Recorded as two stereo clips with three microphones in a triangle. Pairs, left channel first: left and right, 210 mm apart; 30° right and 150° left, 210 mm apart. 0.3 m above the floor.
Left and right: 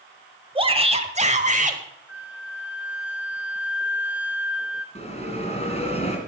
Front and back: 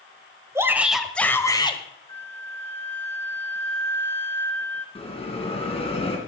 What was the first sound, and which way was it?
A shout, 140° right.